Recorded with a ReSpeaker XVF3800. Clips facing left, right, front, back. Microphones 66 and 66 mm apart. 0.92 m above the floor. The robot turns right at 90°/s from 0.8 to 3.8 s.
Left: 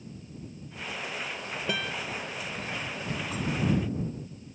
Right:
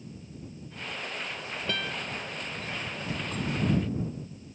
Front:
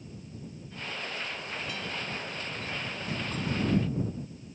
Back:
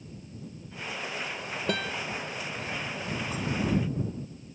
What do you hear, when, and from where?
1.7 s a guitar: 165° left; by 1.9 s 170° right